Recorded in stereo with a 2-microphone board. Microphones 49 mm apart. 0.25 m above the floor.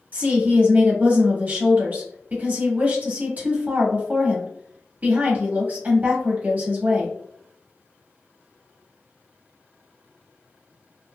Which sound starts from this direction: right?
A woman speaking, at 0.1 s.